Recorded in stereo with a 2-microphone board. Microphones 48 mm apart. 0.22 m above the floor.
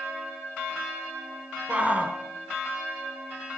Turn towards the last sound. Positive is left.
turn(degrees=-30)  # may be behind; listen again after turning